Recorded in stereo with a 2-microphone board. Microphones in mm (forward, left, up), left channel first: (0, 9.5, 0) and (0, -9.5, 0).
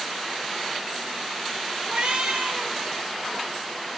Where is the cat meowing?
75° right (ahead or behind), 4.5 m.